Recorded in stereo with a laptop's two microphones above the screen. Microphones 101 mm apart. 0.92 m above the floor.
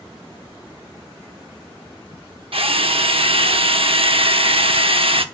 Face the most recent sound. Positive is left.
turn(degrees=-65)  # may be behind; listen again after turning